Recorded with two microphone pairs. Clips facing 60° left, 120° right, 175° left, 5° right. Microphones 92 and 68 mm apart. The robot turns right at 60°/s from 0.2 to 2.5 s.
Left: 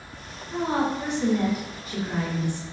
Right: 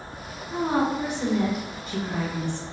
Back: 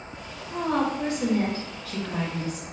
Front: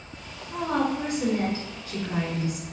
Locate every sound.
0.5 s a woman speaking: 105° right, 1.0 m; by 2.6 s 15° left, 1.0 m